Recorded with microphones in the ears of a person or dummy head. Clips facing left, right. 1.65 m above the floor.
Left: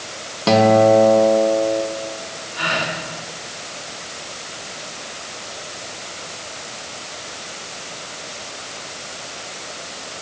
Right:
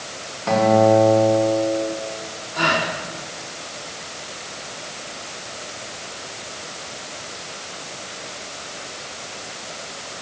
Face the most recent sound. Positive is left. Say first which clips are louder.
# right 3 dB
turn(degrees=-60)  # may be behind; listen again after turning